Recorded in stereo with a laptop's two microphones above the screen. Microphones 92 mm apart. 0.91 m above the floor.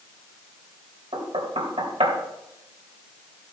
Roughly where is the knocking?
Right.